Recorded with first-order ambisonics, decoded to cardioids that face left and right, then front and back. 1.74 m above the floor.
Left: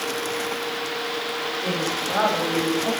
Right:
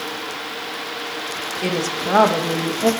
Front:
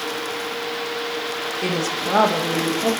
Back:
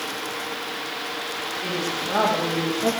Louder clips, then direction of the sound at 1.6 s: Right 5 dB, front 4 dB; 50° right.